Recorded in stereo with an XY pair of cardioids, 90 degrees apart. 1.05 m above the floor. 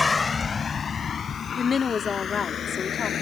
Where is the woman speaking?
40° left.